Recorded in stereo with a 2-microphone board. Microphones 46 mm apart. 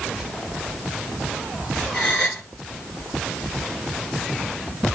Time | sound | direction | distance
1.9 | a gasp | 15° left (ahead or behind) | 2.5 m